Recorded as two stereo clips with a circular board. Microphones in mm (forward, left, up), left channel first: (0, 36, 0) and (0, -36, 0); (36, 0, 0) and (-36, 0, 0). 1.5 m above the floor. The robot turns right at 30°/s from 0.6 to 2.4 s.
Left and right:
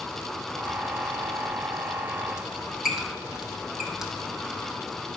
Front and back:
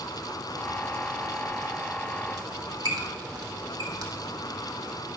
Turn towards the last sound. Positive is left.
turn(degrees=-170)